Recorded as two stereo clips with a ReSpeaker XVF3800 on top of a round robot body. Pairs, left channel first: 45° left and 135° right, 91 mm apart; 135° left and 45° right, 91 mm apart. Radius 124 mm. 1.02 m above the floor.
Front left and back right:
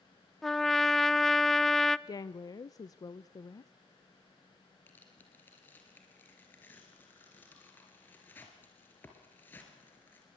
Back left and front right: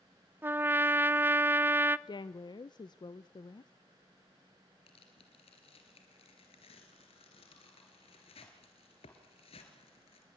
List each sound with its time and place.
0.4 s a trumpet: 40° right, 0.7 m
2.1 s a woman speaking: 95° left, 0.5 m
4.9 s tearing paper: 115° left, 3 m